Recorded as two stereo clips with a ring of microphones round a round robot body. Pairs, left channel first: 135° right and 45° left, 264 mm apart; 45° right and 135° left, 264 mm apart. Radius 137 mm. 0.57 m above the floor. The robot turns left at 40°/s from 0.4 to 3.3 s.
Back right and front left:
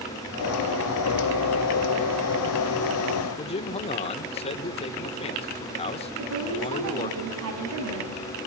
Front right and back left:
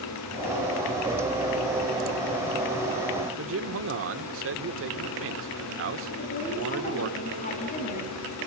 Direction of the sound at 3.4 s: 160° left.